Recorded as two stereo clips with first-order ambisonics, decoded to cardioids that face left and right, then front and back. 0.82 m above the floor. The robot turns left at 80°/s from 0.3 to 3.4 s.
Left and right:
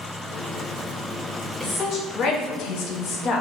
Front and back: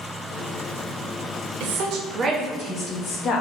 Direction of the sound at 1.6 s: 175° left.